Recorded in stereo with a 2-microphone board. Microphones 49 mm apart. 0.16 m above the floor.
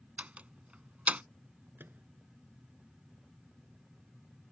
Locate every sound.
0.2 s a door slam: 30° right (ahead or behind)
1.8 s a microwave: 45° right (ahead or behind)